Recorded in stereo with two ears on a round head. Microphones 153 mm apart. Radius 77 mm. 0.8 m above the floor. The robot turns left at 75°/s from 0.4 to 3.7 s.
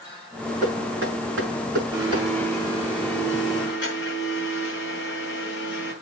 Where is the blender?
150° right, 5 m; by 5.9 s 75° left, 5 m.